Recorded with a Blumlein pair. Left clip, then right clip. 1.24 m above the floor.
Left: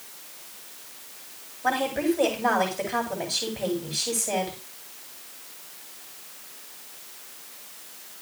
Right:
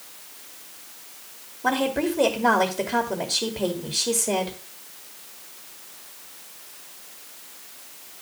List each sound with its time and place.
1.6 s a woman speaking: 20° right, 3 m